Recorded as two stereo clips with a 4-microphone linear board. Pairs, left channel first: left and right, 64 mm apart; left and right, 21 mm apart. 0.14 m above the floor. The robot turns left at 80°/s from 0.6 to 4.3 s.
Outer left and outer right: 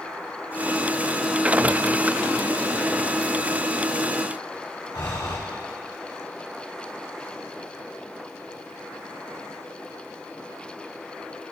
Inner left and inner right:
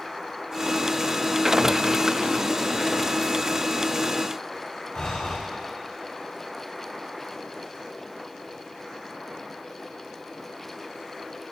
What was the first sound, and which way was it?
Breathing, 80° left.